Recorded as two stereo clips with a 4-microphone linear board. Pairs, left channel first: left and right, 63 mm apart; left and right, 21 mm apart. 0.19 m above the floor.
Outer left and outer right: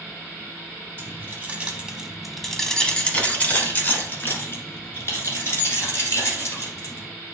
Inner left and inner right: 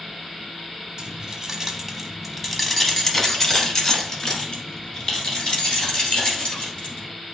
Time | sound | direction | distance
1.0 | keys jangling | 35° right (ahead or behind) | 0.9 m